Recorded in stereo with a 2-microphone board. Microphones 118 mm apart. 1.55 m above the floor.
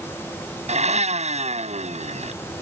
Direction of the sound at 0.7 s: 65° right (ahead or behind).